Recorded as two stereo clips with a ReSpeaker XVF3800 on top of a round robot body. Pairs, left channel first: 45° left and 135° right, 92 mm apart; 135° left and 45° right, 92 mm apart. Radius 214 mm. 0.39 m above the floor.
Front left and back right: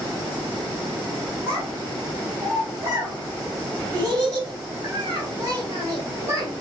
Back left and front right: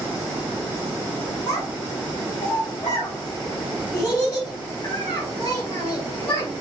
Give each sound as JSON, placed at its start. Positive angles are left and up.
{"t": 1.5, "sound": "a child speaking", "azimuth_deg": -170, "distance_m": 2.5}